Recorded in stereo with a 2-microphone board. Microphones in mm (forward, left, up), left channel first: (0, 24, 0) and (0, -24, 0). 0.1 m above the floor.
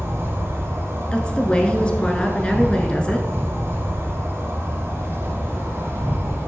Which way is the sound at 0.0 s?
65° right (ahead or behind).